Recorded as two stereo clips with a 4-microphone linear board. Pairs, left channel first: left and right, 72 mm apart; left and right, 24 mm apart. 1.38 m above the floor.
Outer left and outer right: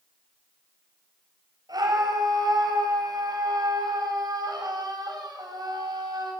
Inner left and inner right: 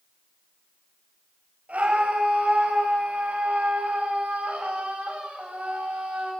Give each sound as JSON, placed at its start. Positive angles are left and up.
{"t": 1.7, "sound": "a scream", "side_deg": -65, "distance_m": 8.5}